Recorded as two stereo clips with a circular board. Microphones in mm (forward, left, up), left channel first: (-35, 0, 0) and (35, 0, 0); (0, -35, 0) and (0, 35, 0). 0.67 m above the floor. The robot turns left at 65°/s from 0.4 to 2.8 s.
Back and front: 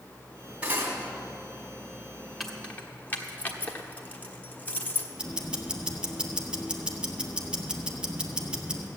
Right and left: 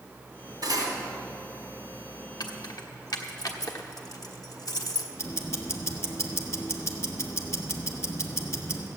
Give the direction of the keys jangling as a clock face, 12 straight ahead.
3 o'clock.